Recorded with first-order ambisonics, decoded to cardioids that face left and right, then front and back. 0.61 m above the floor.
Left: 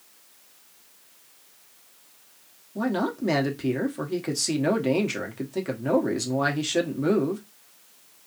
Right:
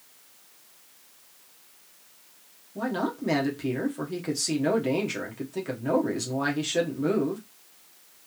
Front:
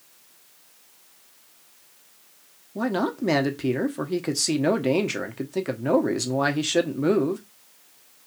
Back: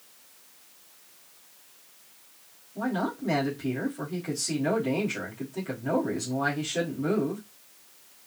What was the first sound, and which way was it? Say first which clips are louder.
A man speaking: left 2 dB, front 5 dB; 15° left.